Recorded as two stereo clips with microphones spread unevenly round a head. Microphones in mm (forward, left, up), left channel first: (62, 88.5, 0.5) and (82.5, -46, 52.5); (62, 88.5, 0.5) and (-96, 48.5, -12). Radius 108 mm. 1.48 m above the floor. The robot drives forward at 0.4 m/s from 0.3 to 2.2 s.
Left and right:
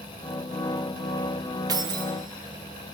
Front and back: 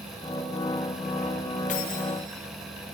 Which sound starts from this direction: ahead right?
Keys jangling, at 1.7 s.